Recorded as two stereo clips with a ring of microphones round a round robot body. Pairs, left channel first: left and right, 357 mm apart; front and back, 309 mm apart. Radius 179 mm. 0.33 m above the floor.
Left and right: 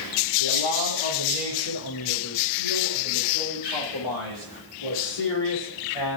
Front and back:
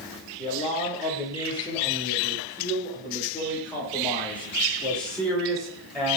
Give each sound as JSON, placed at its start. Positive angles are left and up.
{"t": 0.4, "sound": "a man speaking", "azimuth_deg": 70, "distance_m": 9.0}